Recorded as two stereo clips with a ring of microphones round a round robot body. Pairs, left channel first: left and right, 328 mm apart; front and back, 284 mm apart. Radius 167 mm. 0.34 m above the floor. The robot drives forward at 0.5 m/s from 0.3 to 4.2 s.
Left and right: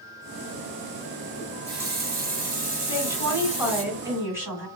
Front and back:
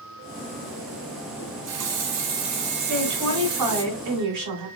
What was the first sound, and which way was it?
A running tap, 140° right.